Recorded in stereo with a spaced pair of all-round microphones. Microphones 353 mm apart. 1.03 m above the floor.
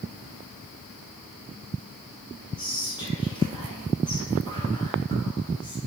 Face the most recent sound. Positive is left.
turn(degrees=10)  # may be behind; listen again after turning